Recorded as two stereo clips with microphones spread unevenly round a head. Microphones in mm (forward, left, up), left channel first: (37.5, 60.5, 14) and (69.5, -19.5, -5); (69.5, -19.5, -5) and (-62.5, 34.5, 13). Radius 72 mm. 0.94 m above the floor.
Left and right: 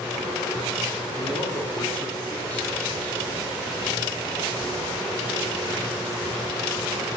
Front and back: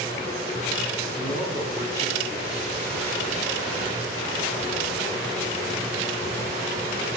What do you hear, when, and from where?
1.2 s a man speaking: 40° left, 8 m